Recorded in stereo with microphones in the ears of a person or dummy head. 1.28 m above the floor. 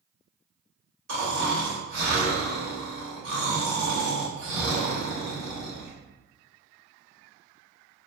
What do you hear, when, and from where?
1.1 s snoring: 60° right (ahead or behind), 1.9 m